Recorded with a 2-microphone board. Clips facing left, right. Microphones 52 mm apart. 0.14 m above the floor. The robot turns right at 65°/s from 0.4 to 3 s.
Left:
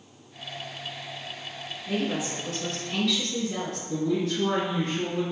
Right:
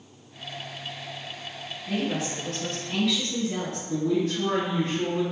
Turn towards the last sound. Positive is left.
turn(degrees=-5)  # may be behind; listen again after turning